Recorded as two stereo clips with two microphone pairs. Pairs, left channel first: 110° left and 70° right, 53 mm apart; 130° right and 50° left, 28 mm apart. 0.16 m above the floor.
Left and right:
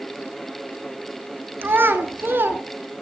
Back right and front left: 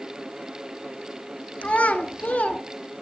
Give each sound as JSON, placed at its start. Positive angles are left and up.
{"t": 1.6, "sound": "a child speaking", "azimuth_deg": -110, "distance_m": 1.3}